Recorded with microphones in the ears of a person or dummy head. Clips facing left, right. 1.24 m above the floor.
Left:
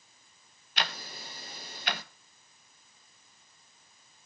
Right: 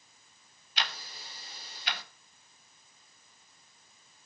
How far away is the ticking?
About 1.0 m.